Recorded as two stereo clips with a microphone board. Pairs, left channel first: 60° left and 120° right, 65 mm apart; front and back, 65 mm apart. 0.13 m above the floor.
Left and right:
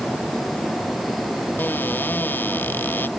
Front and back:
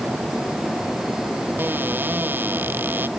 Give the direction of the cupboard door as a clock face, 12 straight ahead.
8 o'clock.